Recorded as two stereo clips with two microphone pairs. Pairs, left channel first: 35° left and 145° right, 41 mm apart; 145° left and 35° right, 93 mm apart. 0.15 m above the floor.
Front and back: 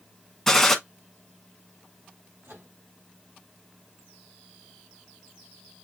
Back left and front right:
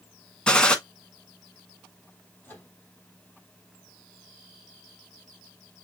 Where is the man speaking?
I don't hear a man speaking.